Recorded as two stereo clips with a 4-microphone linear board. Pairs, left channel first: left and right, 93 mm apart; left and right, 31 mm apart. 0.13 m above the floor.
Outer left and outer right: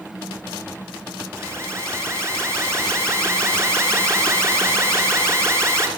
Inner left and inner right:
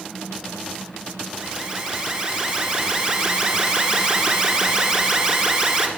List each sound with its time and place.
1.4 s an alarm: 30° right (ahead or behind), 1.6 m